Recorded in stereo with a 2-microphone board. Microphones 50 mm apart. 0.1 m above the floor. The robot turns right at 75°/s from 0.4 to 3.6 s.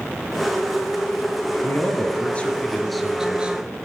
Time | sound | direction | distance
1.6 | a man speaking | 80° left | 1.6 m